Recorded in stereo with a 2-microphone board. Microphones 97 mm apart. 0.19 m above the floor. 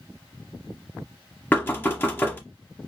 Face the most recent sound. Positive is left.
turn(degrees=20)  # may be behind; listen again after turning